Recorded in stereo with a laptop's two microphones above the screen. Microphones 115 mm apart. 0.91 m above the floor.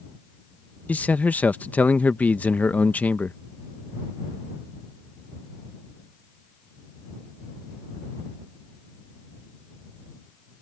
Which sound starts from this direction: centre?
A man speaking, at 0.9 s.